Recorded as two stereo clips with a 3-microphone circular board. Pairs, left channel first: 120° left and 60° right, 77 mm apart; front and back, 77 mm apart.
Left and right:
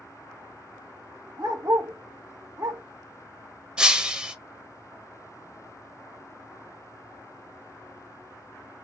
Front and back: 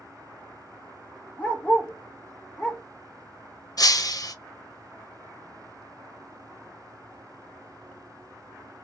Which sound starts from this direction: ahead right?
A dog barking, at 1.4 s.